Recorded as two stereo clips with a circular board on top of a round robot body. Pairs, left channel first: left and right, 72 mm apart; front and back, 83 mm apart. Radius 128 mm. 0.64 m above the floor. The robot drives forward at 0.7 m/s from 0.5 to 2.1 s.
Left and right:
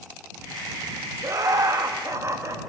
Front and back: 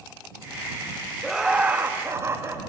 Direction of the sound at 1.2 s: 90° right.